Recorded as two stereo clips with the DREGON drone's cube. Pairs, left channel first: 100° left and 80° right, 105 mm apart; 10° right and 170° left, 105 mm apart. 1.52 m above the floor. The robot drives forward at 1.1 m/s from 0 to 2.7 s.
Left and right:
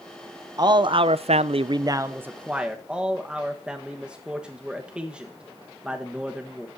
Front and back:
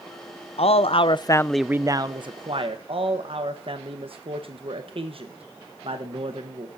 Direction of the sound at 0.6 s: 25° right.